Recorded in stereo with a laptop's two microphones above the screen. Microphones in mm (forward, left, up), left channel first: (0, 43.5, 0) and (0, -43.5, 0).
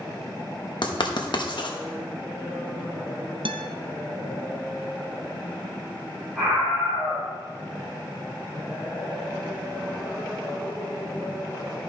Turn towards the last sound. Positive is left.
turn(degrees=5)  # may be behind; listen again after turning